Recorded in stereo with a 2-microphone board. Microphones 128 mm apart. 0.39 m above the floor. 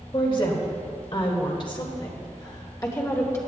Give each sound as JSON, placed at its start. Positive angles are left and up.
{"t": 0.1, "sound": "a woman speaking", "side_deg": 40, "distance_m": 1.9}